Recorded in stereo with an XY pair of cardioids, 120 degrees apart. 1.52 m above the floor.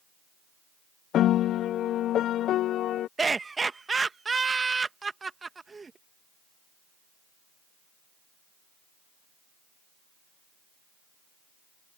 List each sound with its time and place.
1.1 s a piano: 60° left
3.2 s laughter: 25° right